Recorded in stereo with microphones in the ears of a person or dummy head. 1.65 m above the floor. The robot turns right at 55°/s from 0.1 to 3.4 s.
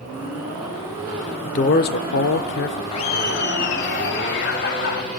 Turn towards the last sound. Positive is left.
turn(degrees=55)  # may be behind; listen again after turning